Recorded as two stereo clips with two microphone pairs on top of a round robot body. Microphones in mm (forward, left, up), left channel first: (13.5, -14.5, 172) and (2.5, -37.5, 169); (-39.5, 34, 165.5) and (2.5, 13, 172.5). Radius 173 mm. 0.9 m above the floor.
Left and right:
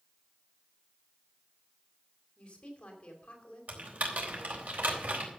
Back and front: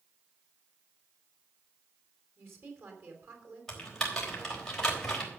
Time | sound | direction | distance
2.4 | a woman speaking | 10° left | 4 m
3.7 | typing on a keyboard | 130° right | 4 m